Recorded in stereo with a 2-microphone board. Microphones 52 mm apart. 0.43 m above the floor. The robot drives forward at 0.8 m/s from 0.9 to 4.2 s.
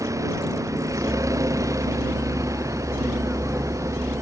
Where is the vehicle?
85° right; by 4.2 s 80° right.